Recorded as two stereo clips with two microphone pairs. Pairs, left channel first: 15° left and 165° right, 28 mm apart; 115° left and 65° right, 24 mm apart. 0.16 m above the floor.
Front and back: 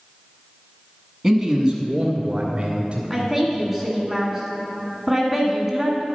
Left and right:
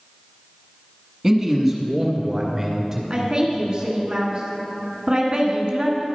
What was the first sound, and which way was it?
A man speaking, 100° right.